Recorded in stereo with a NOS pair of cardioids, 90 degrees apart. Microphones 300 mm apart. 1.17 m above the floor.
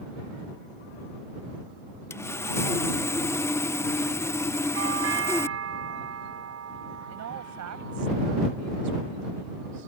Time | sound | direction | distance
2.1 | sawing | 10° left | ?
4.7 | a doorbell | 50° right | ?
7.1 | a woman speaking | 65° right | ?